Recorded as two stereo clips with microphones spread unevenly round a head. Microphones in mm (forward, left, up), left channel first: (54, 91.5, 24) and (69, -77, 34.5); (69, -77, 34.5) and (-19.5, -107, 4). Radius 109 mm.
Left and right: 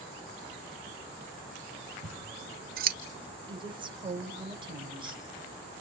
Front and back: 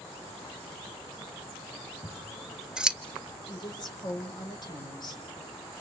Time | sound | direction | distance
2.0 | scissors | 70° right | 1.3 m
3.5 | a woman speaking | 25° right | 5.5 m